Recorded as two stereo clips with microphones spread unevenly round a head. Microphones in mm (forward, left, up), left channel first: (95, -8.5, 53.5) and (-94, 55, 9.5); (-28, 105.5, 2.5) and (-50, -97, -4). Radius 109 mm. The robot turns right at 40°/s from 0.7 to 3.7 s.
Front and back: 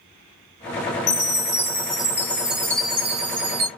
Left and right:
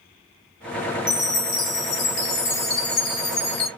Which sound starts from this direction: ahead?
A chime, at 1.1 s.